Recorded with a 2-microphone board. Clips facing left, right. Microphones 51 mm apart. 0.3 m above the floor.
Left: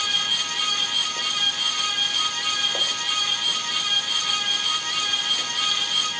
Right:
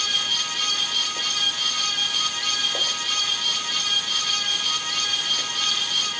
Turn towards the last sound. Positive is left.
No sound to turn to.